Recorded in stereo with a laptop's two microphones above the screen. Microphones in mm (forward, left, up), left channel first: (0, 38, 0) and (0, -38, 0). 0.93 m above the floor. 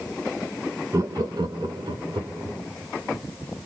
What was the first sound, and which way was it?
Laughter, 40° right (ahead or behind).